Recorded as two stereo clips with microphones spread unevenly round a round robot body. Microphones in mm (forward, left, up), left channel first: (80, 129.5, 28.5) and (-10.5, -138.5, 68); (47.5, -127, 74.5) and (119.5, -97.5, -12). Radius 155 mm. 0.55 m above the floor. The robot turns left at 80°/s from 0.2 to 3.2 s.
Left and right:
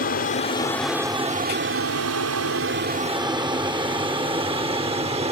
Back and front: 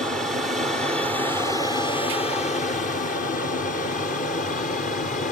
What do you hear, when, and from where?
0.0 s an aircraft: 40° left; by 5.3 s straight behind